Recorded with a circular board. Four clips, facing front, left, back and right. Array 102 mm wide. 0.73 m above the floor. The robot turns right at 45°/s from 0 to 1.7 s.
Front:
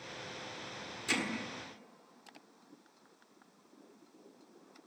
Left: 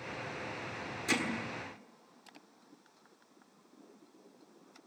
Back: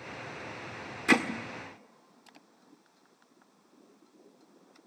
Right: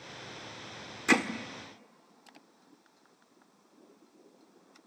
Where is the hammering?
145° right, 1.6 m; by 1.2 s 135° right, 1.6 m.